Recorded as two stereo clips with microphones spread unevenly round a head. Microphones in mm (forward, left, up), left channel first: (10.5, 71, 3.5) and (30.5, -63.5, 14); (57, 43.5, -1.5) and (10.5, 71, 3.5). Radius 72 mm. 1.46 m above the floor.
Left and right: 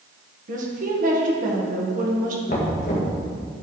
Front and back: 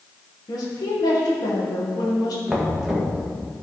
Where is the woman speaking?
50° right, 1.6 m.